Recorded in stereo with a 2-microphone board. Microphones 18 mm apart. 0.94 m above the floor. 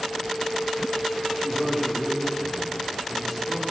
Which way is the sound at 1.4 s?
25° left (ahead or behind).